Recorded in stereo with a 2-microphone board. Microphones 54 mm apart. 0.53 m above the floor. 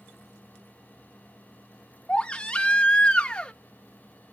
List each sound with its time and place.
2.1 s a baby crying: 20° left (ahead or behind), 0.6 m